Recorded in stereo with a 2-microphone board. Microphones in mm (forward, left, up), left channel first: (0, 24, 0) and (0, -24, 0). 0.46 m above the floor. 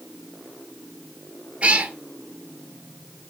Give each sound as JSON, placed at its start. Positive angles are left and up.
{"t": 1.6, "sound": "a cat meowing", "side_deg": -25, "distance_m": 1.0}